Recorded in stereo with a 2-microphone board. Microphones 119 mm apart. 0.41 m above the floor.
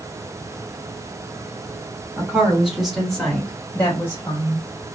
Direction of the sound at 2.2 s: 15° right (ahead or behind).